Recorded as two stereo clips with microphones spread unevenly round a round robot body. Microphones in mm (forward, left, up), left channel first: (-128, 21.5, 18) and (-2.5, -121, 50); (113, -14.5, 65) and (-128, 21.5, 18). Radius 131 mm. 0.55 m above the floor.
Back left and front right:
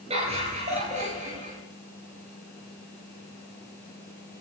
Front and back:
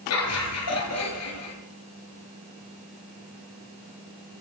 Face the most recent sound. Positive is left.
turn(degrees=15)